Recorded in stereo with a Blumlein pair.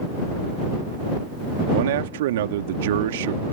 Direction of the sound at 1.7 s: 55° right.